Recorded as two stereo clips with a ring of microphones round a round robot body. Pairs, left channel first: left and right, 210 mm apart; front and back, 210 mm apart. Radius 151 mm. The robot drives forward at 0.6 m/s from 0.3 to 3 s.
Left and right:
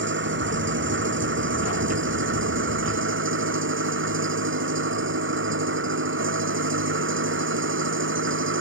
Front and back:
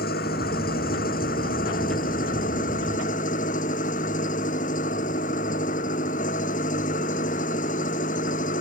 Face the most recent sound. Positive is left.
turn(degrees=-65)